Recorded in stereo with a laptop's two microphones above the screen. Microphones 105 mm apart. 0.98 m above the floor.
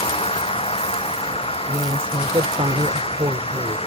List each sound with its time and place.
0.0 s an engine running: 75° left (ahead or behind)
1.7 s a woman speaking: 80° right